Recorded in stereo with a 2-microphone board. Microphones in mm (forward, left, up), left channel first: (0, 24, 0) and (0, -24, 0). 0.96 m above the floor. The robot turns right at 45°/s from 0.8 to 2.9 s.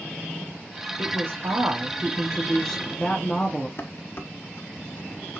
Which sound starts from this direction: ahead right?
A woman speaking, at 1.0 s.